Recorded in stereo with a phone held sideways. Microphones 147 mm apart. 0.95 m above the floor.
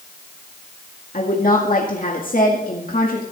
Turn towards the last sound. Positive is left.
turn(degrees=70)  # may be behind; listen again after turning